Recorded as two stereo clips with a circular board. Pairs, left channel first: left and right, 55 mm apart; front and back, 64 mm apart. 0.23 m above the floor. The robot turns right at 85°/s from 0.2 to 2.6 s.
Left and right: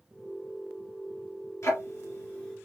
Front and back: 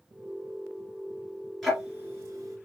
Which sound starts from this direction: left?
Ticking, at 1.6 s.